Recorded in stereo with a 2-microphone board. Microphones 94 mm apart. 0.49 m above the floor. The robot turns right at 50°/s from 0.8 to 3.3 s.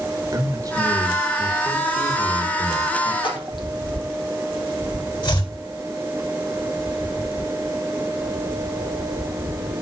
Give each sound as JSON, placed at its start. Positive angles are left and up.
{"t": 0.3, "sound": "a man speaking", "azimuth_deg": -45, "distance_m": 2.0}
{"t": 3.2, "sound": "a splash", "side_deg": 55, "distance_m": 3.5}
{"t": 5.2, "sound": "chopping", "side_deg": 55, "distance_m": 3.5}